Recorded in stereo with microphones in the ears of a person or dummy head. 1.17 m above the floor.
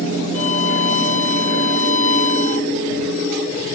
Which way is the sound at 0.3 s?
40° left (ahead or behind).